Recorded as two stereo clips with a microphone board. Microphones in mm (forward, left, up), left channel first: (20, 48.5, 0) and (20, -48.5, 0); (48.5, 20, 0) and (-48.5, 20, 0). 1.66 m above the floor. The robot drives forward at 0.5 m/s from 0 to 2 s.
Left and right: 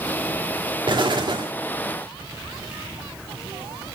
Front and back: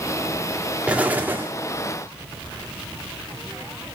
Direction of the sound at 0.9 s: 105° right.